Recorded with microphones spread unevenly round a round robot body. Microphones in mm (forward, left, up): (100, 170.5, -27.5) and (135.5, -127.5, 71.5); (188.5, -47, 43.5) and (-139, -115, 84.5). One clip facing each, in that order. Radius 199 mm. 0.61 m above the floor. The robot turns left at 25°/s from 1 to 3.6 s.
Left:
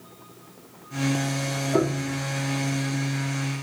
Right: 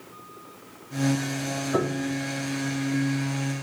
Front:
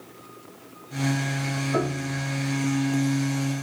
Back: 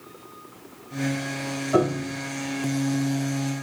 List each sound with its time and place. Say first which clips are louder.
1.7 s a piano: left 2 dB, back 6 dB; 135° right, 6.5 m; by 2.2 s 145° right, 6.5 m